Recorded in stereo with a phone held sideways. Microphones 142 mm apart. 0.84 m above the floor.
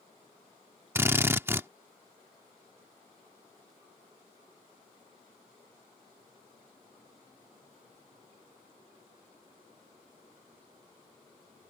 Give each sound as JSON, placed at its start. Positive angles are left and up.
{"t": 0.9, "sound": "a drill", "side_deg": -15}